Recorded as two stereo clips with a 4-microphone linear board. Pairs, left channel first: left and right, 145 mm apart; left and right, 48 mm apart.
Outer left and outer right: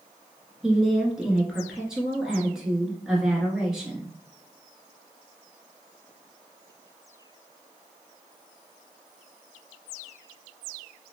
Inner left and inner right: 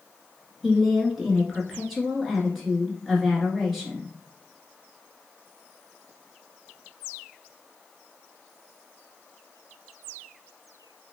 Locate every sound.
0.6 s a woman speaking: 5° right (ahead or behind), 1.1 m